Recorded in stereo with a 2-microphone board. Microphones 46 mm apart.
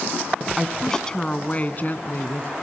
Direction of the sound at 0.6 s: Centre (ahead or behind).